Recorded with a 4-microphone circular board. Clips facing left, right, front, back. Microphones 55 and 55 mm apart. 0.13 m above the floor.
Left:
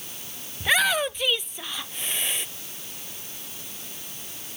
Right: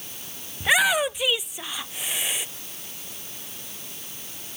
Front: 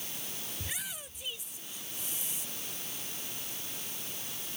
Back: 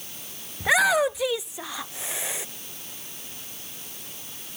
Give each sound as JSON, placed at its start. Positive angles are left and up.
{"t": 0.6, "sound": "a shout", "azimuth_deg": -170}